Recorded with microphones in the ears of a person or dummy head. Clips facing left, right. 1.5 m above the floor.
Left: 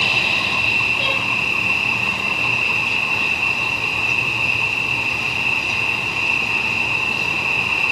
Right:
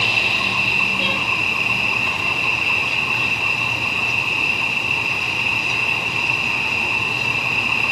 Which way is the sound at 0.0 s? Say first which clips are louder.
Even; 15° right (ahead or behind).